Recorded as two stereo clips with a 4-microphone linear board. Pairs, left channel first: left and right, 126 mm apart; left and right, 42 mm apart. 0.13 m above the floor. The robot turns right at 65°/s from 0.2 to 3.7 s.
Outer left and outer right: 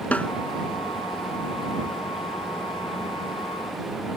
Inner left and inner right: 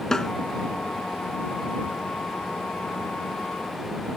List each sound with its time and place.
0.1 s a snare drum: 10° left (ahead or behind)